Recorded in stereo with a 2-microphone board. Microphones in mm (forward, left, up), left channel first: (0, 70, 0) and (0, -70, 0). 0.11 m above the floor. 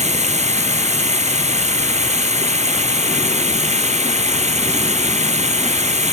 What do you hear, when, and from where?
0.0 s running water: 55° right (ahead or behind)